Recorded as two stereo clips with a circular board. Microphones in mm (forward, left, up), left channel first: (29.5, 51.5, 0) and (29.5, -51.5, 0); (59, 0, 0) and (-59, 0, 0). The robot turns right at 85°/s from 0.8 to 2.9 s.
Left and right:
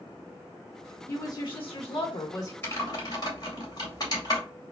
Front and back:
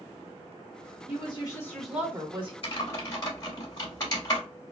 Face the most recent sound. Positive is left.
turn(degrees=50)